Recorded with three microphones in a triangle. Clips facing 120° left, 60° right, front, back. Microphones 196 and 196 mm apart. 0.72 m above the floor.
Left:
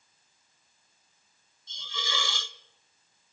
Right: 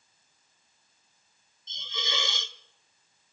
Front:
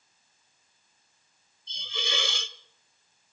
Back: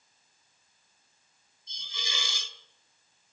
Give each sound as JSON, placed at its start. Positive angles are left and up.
{"t": 1.7, "sound": "a hiss", "azimuth_deg": 5, "distance_m": 0.7}